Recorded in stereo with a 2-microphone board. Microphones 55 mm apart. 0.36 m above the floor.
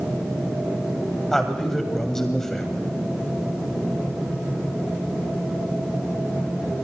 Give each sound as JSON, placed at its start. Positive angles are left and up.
{"t": 1.3, "sound": "a man speaking", "side_deg": 10, "distance_m": 1.9}